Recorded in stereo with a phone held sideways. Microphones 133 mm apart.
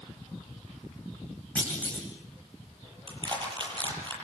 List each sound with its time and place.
1.6 s a clunk: 10° left (ahead or behind), 8.5 m
3.1 s crushing: 40° right (ahead or behind), 8 m